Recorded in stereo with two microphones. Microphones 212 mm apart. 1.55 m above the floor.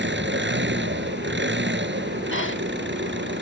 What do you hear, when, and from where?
0.0 s an engine running: 60° right (ahead or behind)
2.3 s breathing: 70° left (ahead or behind)